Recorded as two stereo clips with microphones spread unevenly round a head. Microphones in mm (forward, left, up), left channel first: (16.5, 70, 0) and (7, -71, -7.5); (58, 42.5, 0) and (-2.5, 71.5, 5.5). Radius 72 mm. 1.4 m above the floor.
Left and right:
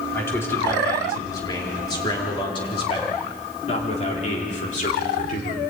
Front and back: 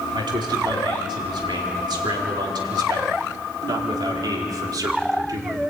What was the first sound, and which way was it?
A man speaking, 160° left.